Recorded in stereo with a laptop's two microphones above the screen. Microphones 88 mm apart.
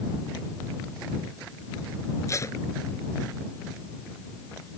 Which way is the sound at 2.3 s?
35° left (ahead or behind).